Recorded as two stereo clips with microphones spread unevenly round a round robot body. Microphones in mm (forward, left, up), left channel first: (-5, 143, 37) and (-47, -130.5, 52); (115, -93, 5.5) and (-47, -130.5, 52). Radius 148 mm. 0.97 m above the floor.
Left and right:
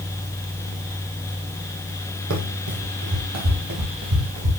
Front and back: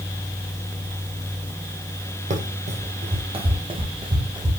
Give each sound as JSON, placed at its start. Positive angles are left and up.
{"t": 2.3, "sound": "running footsteps", "azimuth_deg": -135, "distance_m": 2.5}